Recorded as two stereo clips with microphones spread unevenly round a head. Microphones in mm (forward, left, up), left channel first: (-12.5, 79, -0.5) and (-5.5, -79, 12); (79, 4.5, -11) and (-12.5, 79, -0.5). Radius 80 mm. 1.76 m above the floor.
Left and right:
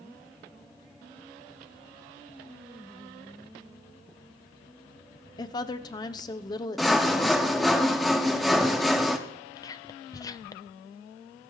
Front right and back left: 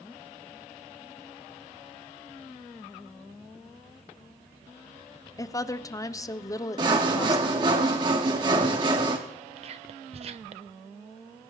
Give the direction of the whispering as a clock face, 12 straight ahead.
7 o'clock.